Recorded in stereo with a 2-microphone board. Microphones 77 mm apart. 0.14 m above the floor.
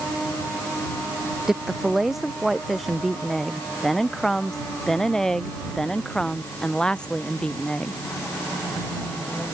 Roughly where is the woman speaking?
Centre.